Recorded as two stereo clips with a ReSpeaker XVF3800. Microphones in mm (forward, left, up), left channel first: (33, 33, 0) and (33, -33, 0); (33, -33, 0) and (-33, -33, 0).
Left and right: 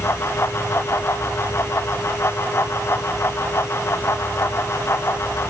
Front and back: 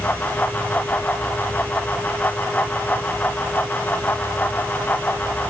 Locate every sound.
Only background noise.